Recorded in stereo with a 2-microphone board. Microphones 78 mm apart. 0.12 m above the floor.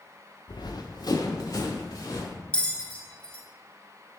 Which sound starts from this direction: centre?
A bell, at 2.5 s.